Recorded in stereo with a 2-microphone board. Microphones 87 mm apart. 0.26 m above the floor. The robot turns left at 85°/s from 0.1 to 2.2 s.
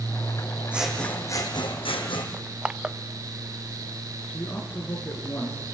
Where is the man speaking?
25° left (ahead or behind), 5 m.